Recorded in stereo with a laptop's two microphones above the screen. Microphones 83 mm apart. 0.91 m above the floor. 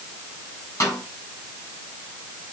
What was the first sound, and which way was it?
A snare drum, 40° left (ahead or behind).